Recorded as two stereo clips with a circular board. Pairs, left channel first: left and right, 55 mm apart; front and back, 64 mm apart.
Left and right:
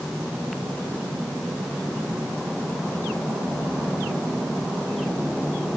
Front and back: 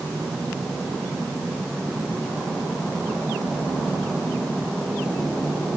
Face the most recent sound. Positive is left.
No sound to turn to.